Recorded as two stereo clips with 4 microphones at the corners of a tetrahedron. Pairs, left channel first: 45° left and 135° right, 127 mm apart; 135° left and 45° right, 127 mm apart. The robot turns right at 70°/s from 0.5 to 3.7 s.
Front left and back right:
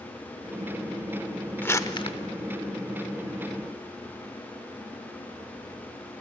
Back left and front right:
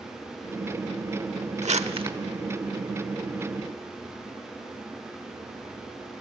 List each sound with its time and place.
1.6 s crumpling: 30° right, 0.9 m; by 2.2 s 5° left, 0.9 m